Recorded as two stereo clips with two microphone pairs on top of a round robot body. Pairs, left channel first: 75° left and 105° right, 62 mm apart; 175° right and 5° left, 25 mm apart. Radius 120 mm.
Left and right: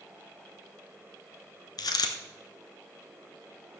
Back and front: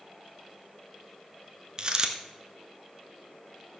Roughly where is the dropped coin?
Ahead left.